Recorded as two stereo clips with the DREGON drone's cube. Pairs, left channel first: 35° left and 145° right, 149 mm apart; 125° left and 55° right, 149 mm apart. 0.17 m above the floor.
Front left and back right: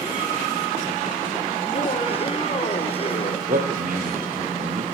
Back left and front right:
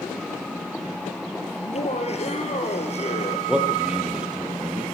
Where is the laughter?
80° left, 4.5 m.